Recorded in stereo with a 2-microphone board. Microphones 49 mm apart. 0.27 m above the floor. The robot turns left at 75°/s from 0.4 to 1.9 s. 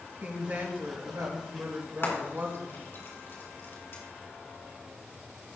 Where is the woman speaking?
30° right, 3.5 m; by 2.8 s 140° right, 3.5 m.